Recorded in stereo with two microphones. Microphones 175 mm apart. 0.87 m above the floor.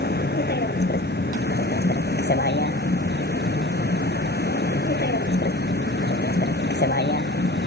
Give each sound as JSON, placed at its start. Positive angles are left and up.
{"t": 0.0, "sound": "a vehicle", "side_deg": 70}